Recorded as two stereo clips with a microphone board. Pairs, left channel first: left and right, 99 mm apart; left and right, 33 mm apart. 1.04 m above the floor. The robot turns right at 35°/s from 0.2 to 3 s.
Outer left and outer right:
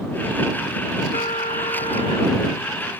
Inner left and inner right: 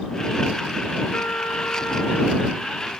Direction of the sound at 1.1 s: 75° left.